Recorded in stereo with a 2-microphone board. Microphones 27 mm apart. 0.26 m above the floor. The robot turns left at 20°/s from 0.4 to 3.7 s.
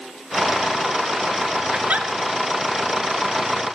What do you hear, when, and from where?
1.7 s a giggle: 60° right (ahead or behind), 0.5 m; by 2.1 s 65° right (ahead or behind), 0.5 m